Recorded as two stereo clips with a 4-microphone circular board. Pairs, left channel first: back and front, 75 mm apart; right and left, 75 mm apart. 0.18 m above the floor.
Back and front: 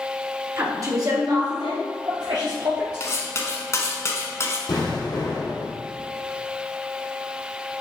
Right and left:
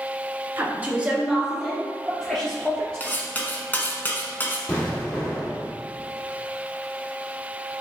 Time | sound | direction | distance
0.6 | a woman speaking | 35° left | 1.8 m
3.0 | cutlery clinking | 150° right | 1.1 m
4.7 | an explosion | 160° right | 2.5 m